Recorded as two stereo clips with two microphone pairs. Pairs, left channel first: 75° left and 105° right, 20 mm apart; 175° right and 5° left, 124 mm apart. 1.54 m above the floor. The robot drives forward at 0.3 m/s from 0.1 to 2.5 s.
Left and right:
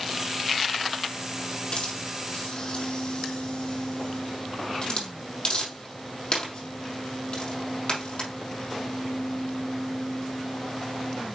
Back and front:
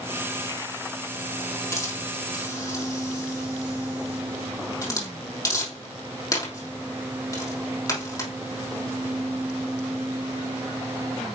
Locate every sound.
1.7 s a hiss: 120° left, 3 m